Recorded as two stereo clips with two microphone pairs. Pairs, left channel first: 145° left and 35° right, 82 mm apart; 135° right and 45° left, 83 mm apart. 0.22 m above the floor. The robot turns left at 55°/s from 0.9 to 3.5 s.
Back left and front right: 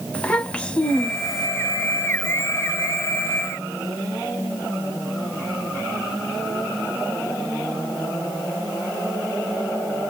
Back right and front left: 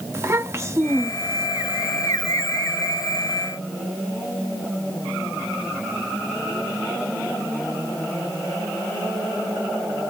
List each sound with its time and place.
0.1 s a child speaking: 75° left, 0.8 m; by 1.5 s 45° left, 0.8 m